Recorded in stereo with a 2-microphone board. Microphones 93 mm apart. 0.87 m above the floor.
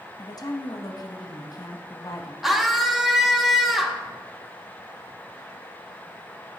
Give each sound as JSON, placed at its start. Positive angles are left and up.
{"t": 0.2, "sound": "a woman speaking", "side_deg": 45, "distance_m": 0.9}
{"t": 2.4, "sound": "a scream", "side_deg": -5, "distance_m": 1.2}